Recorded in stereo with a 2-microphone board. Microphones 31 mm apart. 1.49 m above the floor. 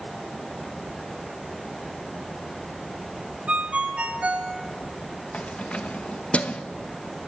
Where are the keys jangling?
40° left (ahead or behind), 0.9 m.